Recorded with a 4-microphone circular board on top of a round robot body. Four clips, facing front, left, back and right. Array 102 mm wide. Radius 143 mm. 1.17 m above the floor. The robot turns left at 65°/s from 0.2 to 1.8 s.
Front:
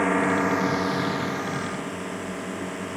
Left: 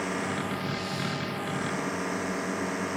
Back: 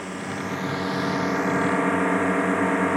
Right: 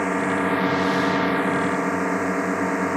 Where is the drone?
40° right; by 3.0 s 145° right.